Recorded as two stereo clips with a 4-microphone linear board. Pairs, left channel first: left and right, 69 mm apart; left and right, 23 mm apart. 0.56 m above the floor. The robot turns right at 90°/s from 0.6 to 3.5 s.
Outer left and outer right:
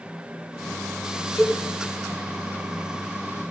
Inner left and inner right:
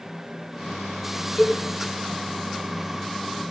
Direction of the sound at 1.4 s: 15° left (ahead or behind).